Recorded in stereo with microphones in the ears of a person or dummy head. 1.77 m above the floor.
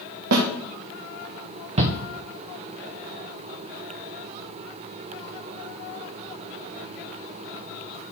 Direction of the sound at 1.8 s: 35° right (ahead or behind).